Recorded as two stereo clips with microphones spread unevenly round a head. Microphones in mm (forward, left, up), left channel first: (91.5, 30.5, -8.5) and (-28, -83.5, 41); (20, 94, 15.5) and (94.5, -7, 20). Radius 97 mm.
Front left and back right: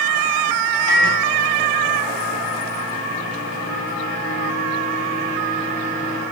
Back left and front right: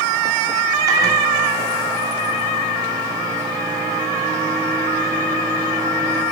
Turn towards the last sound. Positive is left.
turn(degrees=5)